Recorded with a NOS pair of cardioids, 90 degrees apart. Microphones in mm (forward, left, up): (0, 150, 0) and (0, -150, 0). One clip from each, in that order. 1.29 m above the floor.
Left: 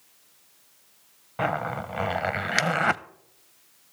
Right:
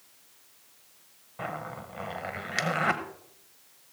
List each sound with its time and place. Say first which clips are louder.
1.4 s a zipper: left 9 dB; 50° left, 0.6 m